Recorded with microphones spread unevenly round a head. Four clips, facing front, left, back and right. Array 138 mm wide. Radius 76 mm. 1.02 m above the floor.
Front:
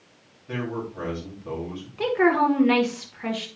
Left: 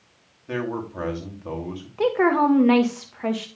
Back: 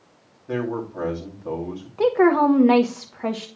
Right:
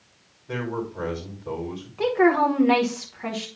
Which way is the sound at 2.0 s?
160° left.